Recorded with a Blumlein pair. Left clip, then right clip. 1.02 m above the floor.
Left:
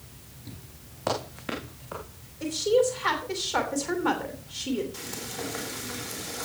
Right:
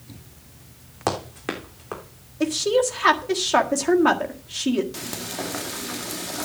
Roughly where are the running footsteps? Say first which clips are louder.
Right 3 dB; ahead right.